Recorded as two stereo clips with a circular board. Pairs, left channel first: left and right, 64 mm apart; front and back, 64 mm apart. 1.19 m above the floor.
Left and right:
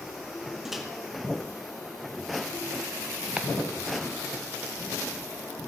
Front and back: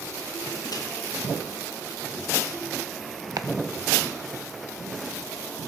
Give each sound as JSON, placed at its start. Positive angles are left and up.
{"t": 0.7, "sound": "a microwave", "azimuth_deg": 0, "distance_m": 1.7}
{"t": 3.4, "sound": "chopping", "azimuth_deg": -165, "distance_m": 0.9}